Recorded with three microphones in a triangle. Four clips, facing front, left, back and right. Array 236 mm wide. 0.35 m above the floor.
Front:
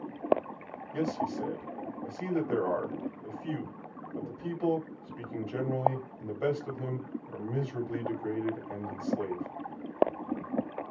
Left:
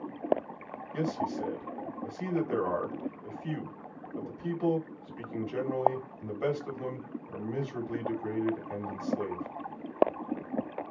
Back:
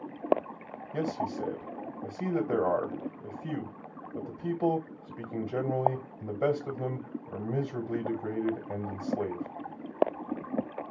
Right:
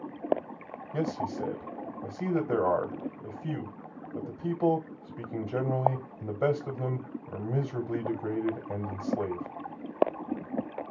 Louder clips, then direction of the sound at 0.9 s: Right 1 dB, even; 125° right.